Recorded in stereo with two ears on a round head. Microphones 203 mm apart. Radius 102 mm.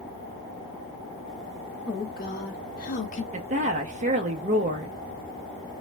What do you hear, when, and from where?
1.9 s a woman speaking: 40° left (ahead or behind), 1.2 m; by 3.2 s 30° left (ahead or behind), 0.8 m
3.3 s a woman speaking: 30° right (ahead or behind), 0.6 m